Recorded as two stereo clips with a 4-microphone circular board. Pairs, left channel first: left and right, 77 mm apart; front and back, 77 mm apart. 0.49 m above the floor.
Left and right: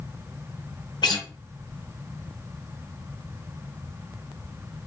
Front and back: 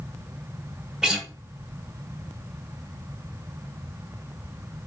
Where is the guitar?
95° left, 1.4 m.